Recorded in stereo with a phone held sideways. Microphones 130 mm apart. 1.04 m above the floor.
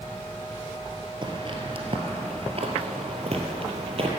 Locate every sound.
1.2 s footsteps: 40° right (ahead or behind), 1.5 m; by 4.1 s 45° right (ahead or behind), 1.8 m